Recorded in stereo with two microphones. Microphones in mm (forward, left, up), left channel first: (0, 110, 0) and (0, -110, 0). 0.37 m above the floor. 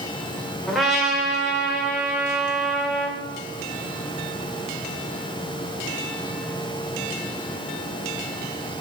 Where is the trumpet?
Centre (ahead or behind), 1.3 m.